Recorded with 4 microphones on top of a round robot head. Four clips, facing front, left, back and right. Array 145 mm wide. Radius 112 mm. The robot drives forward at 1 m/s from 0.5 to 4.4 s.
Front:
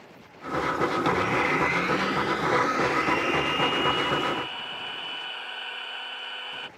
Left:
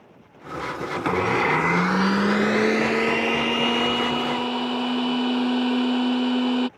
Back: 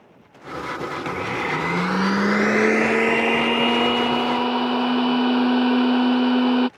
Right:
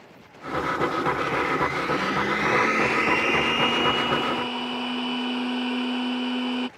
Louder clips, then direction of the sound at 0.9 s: Left 2 dB, front 2 dB; 65° left.